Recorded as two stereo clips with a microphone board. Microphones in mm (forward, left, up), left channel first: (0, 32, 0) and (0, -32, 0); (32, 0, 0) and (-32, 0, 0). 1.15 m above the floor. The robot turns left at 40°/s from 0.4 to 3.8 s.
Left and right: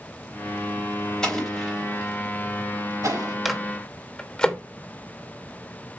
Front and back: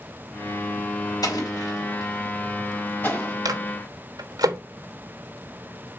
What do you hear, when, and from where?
1.2 s an explosion: 10° left, 4 m; by 3.4 s 75° right, 4 m
3.5 s a microwave: 175° right, 1.1 m; by 4.6 s 170° left, 1.1 m